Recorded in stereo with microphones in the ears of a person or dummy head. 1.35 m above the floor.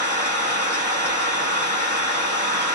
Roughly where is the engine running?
Centre.